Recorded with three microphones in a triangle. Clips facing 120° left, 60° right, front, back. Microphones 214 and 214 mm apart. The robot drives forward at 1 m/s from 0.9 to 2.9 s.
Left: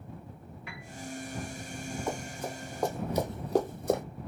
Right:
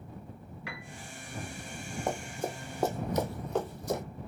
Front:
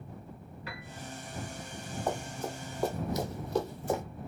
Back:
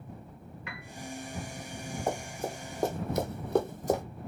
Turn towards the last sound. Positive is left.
turn(degrees=125)